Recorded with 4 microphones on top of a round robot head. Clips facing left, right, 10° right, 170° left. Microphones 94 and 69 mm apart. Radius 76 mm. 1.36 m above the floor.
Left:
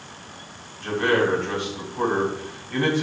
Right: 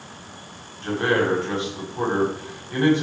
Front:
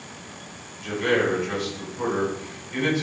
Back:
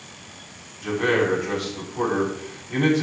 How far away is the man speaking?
About 9 m.